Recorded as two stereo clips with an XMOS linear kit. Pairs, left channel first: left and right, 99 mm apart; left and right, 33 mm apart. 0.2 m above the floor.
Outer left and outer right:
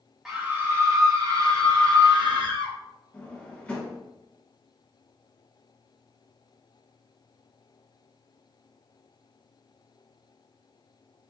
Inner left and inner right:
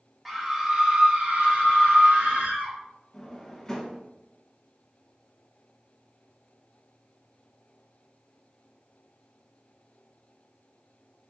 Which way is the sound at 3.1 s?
15° left (ahead or behind).